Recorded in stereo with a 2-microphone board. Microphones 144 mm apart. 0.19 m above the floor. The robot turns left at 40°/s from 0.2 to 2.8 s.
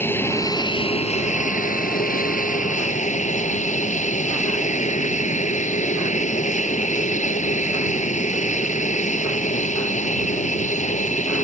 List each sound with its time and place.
0.0 s an aircraft: 165° left; by 11.4 s 60° left